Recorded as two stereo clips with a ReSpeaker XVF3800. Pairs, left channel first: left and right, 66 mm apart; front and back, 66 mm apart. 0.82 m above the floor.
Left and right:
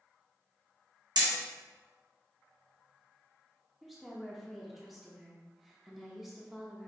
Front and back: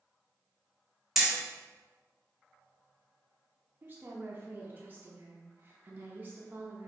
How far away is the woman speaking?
About 0.6 m.